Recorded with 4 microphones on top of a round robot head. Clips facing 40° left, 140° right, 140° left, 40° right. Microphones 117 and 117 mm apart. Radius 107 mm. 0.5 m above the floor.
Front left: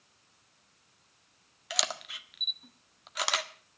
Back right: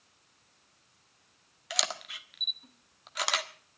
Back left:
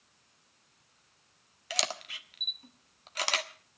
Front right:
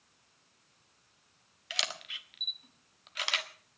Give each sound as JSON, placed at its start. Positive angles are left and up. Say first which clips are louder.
{"t": 1.7, "sound": "a camera shutter", "louder": "even, back left 5 dB", "azimuth_deg": 130, "distance_m": 1.6}